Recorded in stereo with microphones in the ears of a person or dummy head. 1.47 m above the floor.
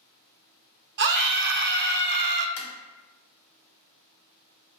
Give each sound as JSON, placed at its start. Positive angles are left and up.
{"t": 1.0, "sound": "a scream", "side_deg": -55, "distance_m": 0.6}
{"t": 2.6, "sound": "tapping", "side_deg": 75, "distance_m": 1.0}